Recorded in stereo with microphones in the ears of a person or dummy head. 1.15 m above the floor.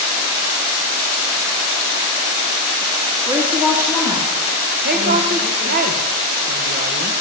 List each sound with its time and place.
3.3 s a woman speaking: 10° right (ahead or behind), 0.9 m
4.8 s a woman speaking: 45° right (ahead or behind), 1.0 m